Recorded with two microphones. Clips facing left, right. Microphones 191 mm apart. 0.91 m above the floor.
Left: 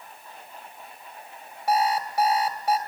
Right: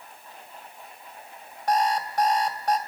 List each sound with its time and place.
1.7 s an alarm clock: 5° left (ahead or behind), 3 m